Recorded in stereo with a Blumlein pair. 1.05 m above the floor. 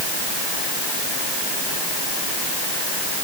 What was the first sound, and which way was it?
Only background noise.